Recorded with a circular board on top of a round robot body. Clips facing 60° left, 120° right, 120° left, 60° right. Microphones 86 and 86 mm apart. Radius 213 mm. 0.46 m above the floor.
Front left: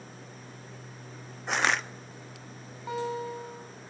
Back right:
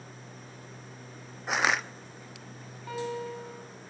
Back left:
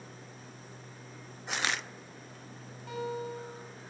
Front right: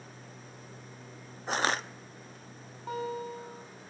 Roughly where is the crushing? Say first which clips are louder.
Even, front right 5 dB; ahead right.